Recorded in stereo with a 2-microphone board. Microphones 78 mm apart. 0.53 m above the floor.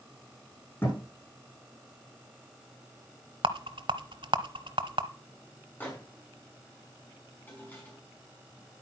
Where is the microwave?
20° left (ahead or behind), 5 m.